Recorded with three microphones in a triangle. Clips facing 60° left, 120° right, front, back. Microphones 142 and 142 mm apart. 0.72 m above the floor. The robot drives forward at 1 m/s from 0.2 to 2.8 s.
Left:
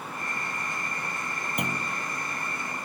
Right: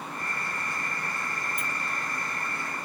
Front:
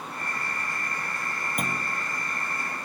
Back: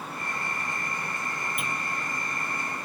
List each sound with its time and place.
1.6 s a clunk: 45° left; by 2.0 s 50° left